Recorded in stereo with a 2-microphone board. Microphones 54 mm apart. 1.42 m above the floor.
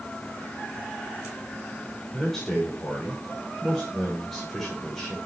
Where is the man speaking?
5° left (ahead or behind), 6.5 m.